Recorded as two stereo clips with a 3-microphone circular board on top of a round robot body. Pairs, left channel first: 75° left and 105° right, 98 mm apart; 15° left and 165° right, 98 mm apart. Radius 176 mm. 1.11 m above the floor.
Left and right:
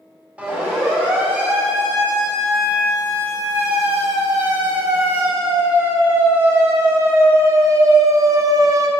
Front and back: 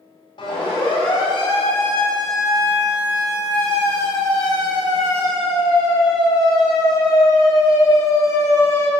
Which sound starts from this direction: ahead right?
A siren, at 0.4 s.